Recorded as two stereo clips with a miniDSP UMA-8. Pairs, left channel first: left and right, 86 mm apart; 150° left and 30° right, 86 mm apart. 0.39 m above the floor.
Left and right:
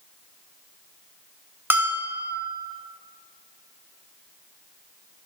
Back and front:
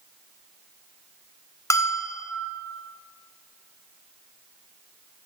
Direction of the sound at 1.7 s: 155° right.